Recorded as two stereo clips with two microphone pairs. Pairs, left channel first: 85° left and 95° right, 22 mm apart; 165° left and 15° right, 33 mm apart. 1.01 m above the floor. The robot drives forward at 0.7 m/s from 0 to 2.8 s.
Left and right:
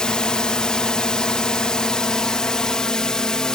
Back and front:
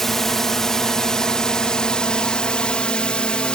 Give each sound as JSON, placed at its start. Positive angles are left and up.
{"t": 0.0, "sound": "a drone", "azimuth_deg": 90}